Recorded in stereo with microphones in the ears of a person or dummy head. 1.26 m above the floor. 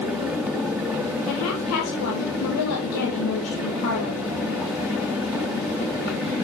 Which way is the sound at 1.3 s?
80° left.